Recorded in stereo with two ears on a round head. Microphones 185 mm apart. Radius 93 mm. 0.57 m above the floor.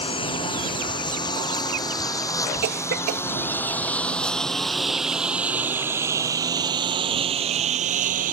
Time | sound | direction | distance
0.0 | a lawn mower | 25° left (ahead or behind) | ?
2.6 | a cough | 50° right (ahead or behind) | ?